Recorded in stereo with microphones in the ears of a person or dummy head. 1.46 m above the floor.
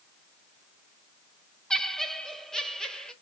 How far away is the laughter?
About 0.6 m.